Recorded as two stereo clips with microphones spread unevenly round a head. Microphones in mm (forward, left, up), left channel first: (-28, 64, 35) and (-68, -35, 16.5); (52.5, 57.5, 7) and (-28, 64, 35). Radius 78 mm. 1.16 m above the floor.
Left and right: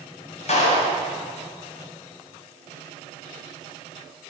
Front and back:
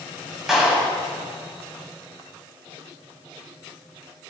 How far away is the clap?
About 8 m.